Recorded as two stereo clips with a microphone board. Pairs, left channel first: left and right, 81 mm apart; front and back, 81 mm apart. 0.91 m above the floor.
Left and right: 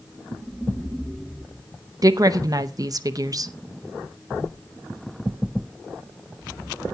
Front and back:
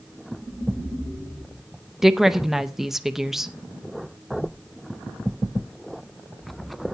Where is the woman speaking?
95° right, 0.7 m.